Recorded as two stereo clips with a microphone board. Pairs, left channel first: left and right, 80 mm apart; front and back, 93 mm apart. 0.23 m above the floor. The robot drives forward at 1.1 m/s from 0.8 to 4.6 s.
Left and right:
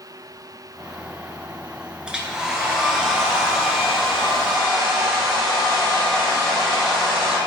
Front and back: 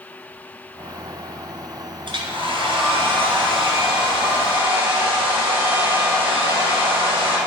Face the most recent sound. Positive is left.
turn(degrees=-175)